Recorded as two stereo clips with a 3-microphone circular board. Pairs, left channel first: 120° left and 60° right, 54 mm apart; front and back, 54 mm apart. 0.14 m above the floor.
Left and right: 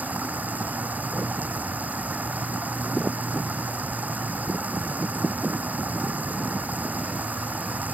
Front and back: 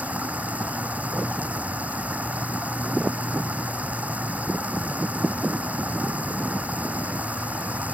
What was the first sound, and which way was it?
Running water, 120° right.